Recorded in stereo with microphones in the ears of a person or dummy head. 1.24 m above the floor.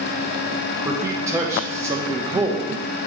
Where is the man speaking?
15° right (ahead or behind), 0.5 m.